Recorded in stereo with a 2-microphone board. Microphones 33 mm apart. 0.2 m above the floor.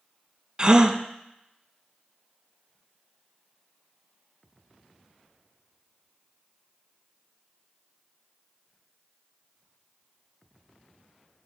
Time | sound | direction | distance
0.6 | a gasp | 30° right (ahead or behind) | 0.5 m